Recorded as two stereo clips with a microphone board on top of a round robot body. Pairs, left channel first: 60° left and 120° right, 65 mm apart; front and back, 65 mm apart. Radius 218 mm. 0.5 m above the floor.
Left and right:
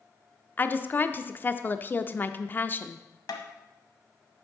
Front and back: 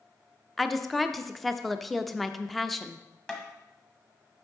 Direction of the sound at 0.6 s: 85° left.